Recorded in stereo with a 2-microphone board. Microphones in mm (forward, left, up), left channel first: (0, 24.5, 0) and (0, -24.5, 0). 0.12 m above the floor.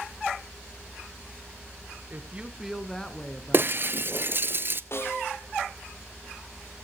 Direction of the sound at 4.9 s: 55° left (ahead or behind).